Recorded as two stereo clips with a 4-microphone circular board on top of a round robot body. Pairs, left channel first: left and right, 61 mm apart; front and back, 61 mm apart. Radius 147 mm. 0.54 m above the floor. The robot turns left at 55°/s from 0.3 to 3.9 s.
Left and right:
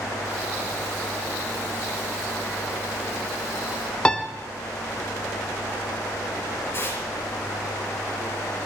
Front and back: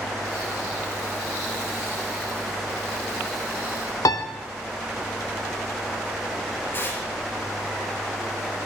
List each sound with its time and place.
4.0 s a piano: 15° left, 1.4 m
6.7 s tearing paper: 50° left, 6.5 m